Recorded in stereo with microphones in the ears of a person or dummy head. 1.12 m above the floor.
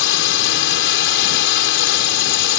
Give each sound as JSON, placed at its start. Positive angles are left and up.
{"t": 0.0, "sound": "a drone", "side_deg": 75}